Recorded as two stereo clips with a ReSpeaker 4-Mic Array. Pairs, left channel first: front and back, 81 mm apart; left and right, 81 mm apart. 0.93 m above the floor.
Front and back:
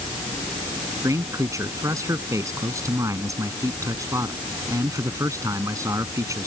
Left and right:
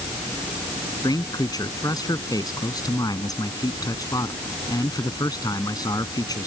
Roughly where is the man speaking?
Behind left.